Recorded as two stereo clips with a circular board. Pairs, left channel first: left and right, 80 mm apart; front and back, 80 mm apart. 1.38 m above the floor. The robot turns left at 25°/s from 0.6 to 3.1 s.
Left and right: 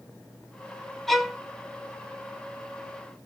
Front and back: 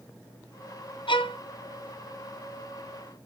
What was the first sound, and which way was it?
A violin, 5° left.